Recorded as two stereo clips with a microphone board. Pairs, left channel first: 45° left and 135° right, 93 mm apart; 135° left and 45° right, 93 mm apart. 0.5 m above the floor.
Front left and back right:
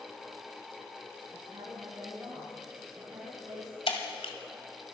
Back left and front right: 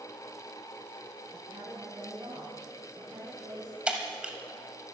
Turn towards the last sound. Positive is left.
turn(degrees=35)